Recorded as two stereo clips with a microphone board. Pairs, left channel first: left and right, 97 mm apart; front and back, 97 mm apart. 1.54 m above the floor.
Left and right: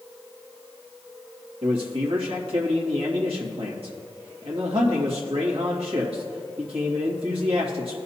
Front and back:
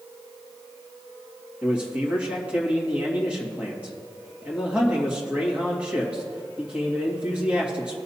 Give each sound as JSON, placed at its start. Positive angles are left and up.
{"t": 1.6, "sound": "a man speaking", "azimuth_deg": -105, "distance_m": 2.0}